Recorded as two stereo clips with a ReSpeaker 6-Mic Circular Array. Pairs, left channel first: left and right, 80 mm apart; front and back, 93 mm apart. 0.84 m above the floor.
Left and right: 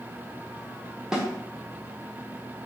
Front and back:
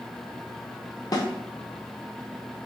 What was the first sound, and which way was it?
A snare drum, 10° right.